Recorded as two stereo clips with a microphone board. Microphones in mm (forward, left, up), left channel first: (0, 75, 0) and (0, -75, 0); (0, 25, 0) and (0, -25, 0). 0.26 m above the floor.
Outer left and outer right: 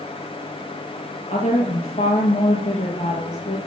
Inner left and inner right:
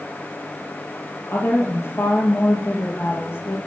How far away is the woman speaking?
About 7.5 m.